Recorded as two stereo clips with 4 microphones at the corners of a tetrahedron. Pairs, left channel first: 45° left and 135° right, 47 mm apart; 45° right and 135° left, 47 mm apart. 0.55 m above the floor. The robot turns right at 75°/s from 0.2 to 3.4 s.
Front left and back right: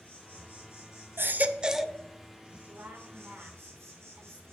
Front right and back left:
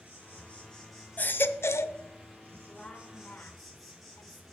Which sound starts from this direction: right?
A baby crying, at 1.2 s.